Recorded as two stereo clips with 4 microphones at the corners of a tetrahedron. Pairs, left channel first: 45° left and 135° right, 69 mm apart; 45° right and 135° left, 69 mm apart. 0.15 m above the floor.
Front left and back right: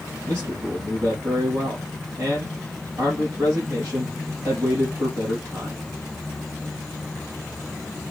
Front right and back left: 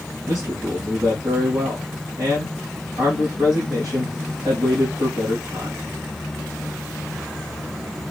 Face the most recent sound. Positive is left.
turn(degrees=175)